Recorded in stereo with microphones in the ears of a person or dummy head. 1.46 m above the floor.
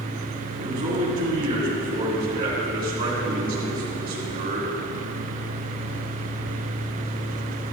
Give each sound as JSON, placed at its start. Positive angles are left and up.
{"t": 0.6, "sound": "a man speaking", "side_deg": -45, "distance_m": 5.0}